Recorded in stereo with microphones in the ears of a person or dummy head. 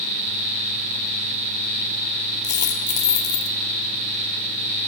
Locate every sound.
2.4 s a dropped coin: 15° left (ahead or behind), 1.7 m